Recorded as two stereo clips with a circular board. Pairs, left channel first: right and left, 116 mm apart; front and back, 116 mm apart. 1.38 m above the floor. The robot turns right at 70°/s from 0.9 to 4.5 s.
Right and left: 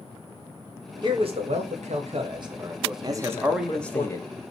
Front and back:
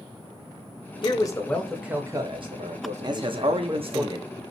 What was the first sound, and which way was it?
A man speaking, 40° left.